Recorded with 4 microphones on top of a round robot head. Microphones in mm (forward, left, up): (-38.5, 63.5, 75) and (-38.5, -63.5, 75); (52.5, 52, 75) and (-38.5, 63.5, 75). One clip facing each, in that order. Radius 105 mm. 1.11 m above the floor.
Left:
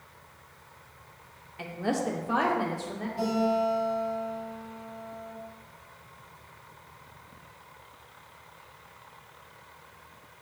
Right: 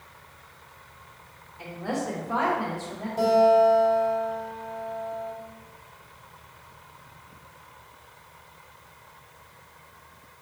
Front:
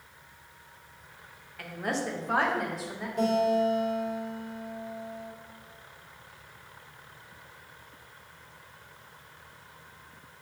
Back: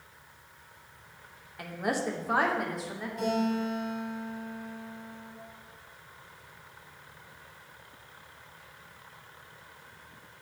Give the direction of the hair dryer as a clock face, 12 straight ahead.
No hair dryer in this recording.